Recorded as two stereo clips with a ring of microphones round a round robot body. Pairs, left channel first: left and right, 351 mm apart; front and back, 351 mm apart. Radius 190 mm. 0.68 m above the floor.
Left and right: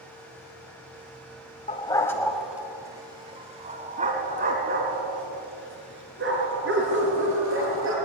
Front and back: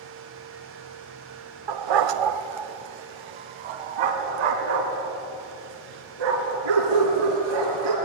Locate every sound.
1.7 s a dog barking: 165° left, 1.1 m; by 8.0 s 150° right, 5 m